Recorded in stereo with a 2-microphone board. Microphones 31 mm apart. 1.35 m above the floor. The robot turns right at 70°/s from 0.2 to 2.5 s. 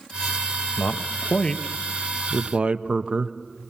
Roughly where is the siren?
No siren in this recording.